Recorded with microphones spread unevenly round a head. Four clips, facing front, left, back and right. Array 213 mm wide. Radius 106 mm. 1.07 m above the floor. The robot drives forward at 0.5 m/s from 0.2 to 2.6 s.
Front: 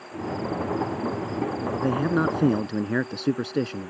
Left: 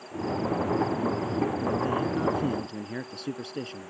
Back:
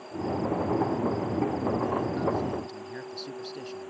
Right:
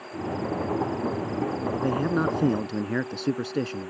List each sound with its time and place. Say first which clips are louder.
1.8 s a man speaking: right 6 dB, front 4 dB; 25° right